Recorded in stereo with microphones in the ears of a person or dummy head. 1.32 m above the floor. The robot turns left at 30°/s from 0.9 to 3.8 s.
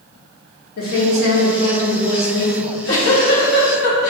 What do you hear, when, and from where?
0.8 s a woman speaking: 125° left, 1.0 m; by 2.5 s 75° left, 1.0 m
2.6 s a giggle: 95° left, 1.2 m; by 4.1 s 55° left, 1.2 m